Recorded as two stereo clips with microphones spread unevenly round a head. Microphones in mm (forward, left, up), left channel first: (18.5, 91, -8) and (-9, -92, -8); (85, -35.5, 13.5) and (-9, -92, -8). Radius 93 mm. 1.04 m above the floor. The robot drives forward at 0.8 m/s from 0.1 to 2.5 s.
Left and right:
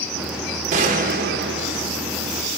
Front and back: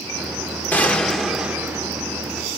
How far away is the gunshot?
About 1.3 m.